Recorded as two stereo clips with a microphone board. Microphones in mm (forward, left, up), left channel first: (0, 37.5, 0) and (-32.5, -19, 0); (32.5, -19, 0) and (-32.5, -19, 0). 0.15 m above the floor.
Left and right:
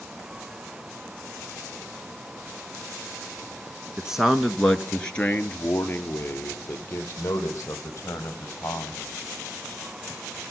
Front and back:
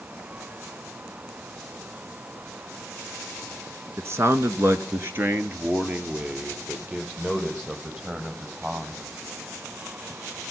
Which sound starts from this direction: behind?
A man speaking, at 4.0 s.